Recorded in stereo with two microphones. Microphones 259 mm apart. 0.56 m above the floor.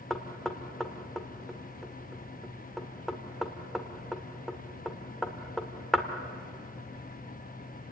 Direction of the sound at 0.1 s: Centre (ahead or behind).